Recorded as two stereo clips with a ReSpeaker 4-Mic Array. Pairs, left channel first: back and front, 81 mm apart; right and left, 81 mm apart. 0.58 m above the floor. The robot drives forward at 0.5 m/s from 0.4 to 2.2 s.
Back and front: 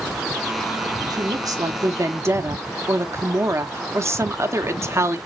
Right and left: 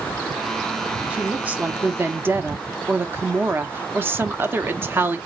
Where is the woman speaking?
20° left, 1.2 m; by 5.2 s 40° left, 0.8 m.